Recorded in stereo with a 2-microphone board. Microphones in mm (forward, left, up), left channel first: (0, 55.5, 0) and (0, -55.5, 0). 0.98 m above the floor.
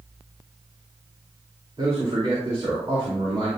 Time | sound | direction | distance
1.8 | a man speaking | 50° right (ahead or behind) | 2.5 m